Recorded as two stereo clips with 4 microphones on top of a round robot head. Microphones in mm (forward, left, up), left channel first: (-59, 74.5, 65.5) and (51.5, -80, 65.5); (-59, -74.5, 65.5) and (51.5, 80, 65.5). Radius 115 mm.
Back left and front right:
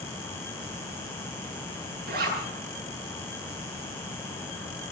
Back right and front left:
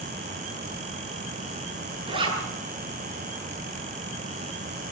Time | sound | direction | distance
2.1 | a zipper | 15° right | 8.5 m